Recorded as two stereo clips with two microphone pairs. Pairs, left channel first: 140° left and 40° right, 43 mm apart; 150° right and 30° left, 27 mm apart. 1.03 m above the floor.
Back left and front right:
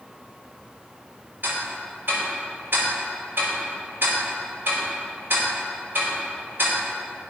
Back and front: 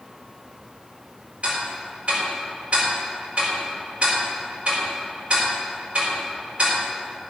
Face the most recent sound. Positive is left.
turn(degrees=0)